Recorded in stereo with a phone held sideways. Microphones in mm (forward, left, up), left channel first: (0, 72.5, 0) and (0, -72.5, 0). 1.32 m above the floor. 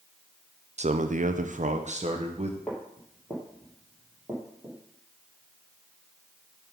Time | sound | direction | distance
0.8 | a man speaking | 50° right (ahead or behind) | 0.5 m
2.7 | footsteps | 5° left (ahead or behind) | 2 m